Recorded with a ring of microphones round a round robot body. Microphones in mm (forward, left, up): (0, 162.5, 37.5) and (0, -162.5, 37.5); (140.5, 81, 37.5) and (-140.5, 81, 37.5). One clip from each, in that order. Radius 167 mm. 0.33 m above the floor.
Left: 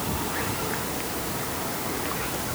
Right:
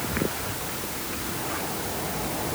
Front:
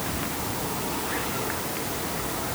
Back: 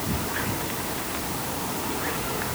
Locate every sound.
Only background noise.